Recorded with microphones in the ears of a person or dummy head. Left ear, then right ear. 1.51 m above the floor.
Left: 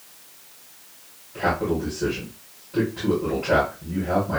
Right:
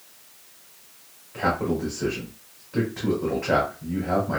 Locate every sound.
1.3 s a man speaking: 75° right (ahead or behind), 2.5 m